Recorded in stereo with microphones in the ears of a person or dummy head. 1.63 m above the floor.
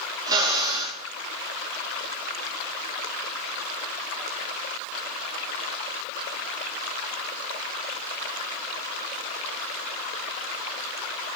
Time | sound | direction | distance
0.3 | a drill | 20° right (ahead or behind) | 3 m